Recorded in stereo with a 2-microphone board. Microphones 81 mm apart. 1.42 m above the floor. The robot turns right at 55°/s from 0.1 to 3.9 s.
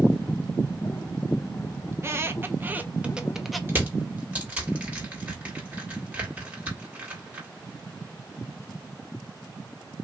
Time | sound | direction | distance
1.9 | a squeak | 30° right (ahead or behind) | 0.5 m
3.7 | crushing | 30° right (ahead or behind) | 1.6 m